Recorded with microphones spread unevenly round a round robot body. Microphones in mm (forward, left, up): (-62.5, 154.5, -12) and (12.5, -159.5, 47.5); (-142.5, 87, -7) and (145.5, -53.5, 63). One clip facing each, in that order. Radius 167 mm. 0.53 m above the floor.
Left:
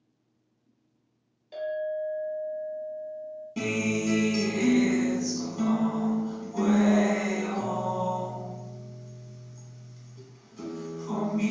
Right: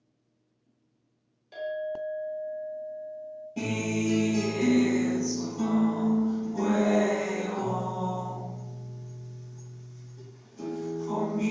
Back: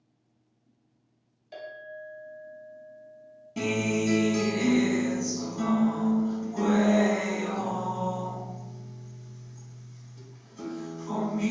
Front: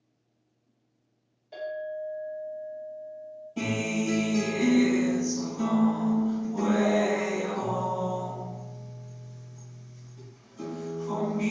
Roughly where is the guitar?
Behind left.